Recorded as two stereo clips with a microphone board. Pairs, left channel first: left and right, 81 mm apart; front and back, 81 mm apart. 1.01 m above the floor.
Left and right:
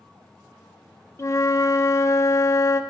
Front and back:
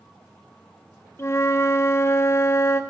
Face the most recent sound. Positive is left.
turn(degrees=50)